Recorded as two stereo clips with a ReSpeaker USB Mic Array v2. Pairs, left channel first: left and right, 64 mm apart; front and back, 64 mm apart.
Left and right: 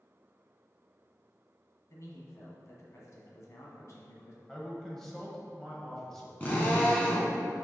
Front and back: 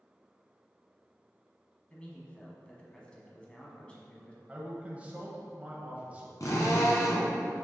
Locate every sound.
1.9 s a man speaking: 70° left, 1.6 m
4.5 s a man speaking: 165° left, 0.9 m
6.4 s a drill: 25° left, 1.5 m